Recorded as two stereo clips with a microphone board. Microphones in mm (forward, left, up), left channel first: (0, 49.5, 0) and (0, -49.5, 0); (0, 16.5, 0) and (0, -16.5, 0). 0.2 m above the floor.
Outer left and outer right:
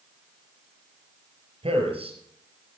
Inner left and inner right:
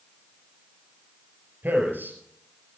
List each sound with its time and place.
1.6 s a man speaking: 70° right (ahead or behind), 4.5 m